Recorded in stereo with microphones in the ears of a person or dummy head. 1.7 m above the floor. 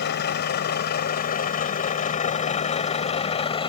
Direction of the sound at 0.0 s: 55° left (ahead or behind).